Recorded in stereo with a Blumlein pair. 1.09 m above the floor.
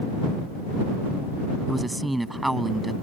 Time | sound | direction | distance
1.7 | a man speaking | 5° right | ?